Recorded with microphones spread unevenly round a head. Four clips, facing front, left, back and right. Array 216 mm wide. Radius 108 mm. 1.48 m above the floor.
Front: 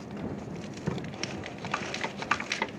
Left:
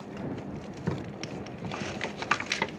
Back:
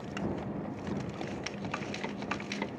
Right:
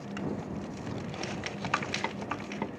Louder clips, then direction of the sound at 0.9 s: Left 8 dB, front 4 dB; 50° left.